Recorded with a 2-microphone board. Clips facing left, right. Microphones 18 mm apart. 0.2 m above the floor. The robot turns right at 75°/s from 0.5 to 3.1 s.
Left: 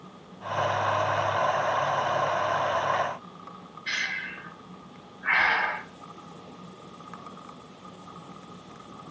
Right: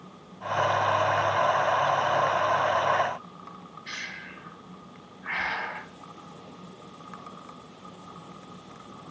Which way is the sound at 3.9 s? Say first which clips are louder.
Left 8 dB; 35° left (ahead or behind).